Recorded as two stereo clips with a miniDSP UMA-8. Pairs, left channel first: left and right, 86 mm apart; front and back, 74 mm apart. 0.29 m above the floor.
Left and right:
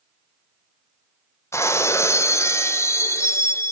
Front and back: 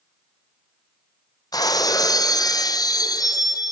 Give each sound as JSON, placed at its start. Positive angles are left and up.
{"t": 1.5, "sound": "breaking glass", "azimuth_deg": 30, "distance_m": 1.2}